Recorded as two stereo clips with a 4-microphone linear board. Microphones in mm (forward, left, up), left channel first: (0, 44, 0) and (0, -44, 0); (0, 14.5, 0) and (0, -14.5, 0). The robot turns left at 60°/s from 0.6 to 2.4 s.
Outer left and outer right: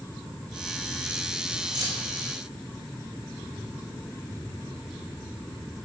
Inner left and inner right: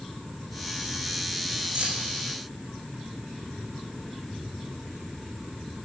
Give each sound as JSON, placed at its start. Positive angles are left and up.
{"t": 1.8, "sound": "keys jangling", "side_deg": -55, "distance_m": 5.5}